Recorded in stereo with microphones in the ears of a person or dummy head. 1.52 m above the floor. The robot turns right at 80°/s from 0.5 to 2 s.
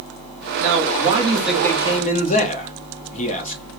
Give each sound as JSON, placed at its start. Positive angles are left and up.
{"t": 0.6, "sound": "a man speaking", "azimuth_deg": -75, "distance_m": 1.2}